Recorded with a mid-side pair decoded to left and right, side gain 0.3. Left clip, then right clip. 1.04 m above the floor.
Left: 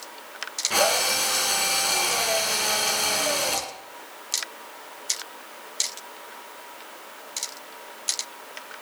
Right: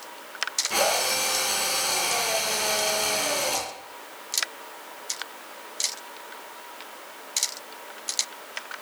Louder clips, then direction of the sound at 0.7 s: Left 3 dB; 40° left.